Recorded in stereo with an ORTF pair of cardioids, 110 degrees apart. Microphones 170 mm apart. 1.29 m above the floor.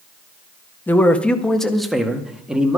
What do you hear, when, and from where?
0.9 s a man speaking: 10° left, 1.4 m; by 2.8 s 5° right, 2.5 m